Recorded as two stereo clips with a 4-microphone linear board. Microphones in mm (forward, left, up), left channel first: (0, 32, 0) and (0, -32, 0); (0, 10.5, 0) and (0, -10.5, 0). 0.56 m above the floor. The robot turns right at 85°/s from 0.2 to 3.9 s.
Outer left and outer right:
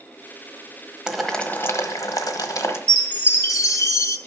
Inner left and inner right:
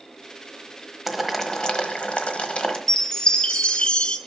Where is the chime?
20° left, 0.8 m; by 4.2 s 105° left, 0.8 m.